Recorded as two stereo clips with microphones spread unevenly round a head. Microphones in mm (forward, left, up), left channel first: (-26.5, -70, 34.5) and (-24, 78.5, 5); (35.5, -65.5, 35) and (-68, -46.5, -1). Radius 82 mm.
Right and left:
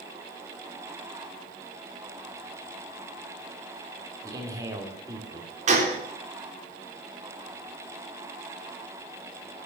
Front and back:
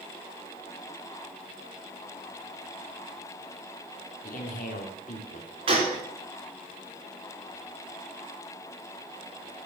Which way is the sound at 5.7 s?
125° left.